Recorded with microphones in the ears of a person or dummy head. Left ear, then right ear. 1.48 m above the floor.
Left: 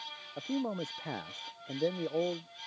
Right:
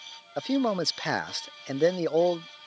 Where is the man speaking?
60° right (ahead or behind).